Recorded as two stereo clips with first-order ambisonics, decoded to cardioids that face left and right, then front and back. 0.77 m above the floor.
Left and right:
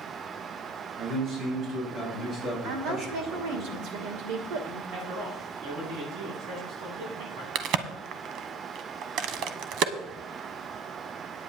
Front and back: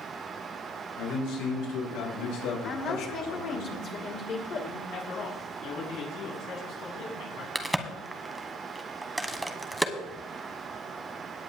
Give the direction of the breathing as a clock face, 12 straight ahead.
I don't hear breathing.